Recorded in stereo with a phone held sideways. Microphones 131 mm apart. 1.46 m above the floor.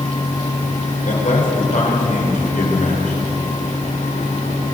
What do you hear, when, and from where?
0.0 s a fan: 80° left, 5.5 m
1.1 s a man speaking: 80° left, 4.5 m